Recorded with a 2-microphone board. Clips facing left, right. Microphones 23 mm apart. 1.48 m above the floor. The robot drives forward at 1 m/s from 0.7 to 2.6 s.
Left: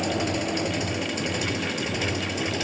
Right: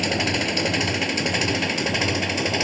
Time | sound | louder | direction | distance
0.0 | an engine running | right 4 dB | 40° right (ahead or behind) | ?